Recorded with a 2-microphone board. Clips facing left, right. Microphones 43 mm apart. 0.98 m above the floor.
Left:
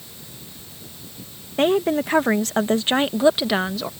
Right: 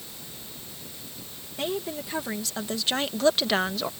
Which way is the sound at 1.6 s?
55° left (ahead or behind).